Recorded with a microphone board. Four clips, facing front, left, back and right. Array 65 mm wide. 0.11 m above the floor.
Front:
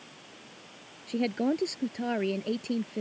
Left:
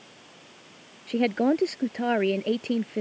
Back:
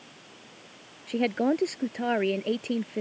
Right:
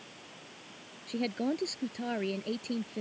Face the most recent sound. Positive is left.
turn(degrees=120)